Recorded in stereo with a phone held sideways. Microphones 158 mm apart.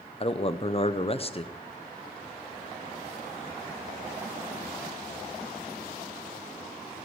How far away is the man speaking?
About 0.7 m.